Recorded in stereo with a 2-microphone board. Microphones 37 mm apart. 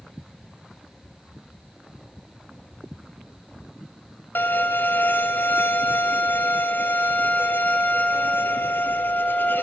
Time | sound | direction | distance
4.3 | a violin | 70° left (ahead or behind) | 1.6 m